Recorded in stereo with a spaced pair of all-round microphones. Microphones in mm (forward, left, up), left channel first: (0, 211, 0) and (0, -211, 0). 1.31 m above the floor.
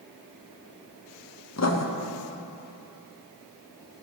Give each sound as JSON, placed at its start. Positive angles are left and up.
{"t": 1.6, "sound": "writing", "side_deg": 40, "distance_m": 0.6}